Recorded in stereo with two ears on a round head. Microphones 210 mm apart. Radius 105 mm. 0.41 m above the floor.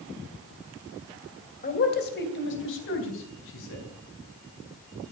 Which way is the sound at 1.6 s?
35° left (ahead or behind).